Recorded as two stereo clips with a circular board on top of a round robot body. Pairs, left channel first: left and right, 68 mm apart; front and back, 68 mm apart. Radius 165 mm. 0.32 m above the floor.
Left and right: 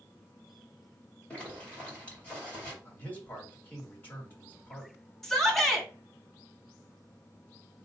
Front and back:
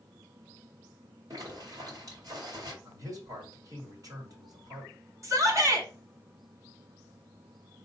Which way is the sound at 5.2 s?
175° left.